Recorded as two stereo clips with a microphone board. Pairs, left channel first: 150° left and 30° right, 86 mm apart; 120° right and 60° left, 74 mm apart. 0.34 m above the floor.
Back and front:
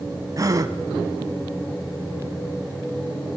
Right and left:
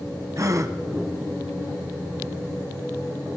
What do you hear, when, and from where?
0.4 s a gasp: 20° left, 1.6 m